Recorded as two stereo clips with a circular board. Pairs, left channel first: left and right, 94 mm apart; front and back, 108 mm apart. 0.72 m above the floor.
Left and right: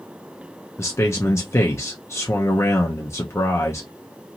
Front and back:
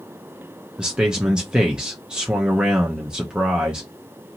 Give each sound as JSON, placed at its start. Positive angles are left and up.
{"t": 0.8, "sound": "a man speaking", "azimuth_deg": 105, "distance_m": 0.6}